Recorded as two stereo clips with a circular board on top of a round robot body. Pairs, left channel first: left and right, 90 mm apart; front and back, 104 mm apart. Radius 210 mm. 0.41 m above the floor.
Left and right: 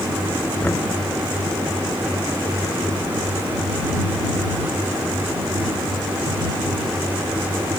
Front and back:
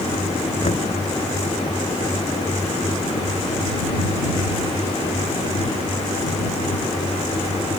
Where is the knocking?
20° left.